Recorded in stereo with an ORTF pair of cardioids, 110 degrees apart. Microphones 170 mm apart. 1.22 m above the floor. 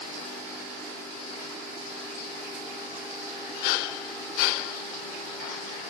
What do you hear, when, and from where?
Only background noise.